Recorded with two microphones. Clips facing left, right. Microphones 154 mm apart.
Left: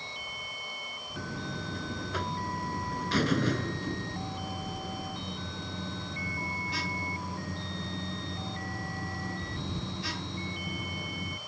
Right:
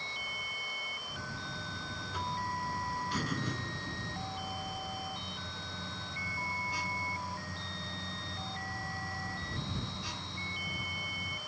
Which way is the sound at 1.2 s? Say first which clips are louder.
Left 8 dB; 75° left (ahead or behind).